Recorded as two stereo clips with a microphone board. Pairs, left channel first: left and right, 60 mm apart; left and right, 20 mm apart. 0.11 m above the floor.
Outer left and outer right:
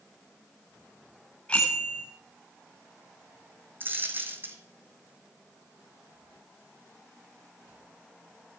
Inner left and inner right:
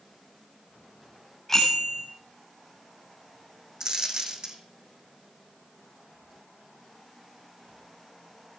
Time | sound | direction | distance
1.5 | a bicycle bell | 20° left (ahead or behind) | 8 m
3.8 | a dropped coin | 35° right (ahead or behind) | 1.8 m